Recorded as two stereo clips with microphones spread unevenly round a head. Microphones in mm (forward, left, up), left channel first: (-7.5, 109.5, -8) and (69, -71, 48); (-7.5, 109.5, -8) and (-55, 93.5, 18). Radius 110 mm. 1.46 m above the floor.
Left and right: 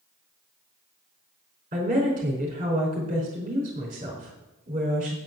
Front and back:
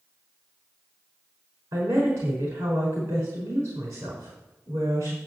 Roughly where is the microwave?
I don't hear a microwave.